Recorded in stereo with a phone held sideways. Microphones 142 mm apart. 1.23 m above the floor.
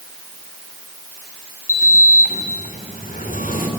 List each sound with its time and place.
1.7 s a sliding door: 70° left (ahead or behind), 2.5 m